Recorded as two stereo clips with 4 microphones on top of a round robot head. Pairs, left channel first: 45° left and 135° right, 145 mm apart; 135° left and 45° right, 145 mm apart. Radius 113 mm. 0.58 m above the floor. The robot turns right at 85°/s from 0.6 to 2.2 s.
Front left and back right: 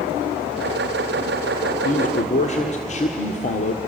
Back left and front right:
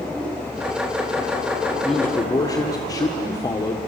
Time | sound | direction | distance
1.8 | a man speaking | 40° left | 1.7 m